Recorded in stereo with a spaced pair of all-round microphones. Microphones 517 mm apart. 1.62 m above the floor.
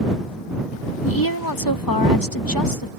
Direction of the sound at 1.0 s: 45° left (ahead or behind).